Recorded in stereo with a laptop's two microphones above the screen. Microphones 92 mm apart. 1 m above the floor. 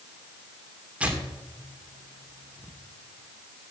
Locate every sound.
1.0 s tearing paper: 15° right (ahead or behind), 2 m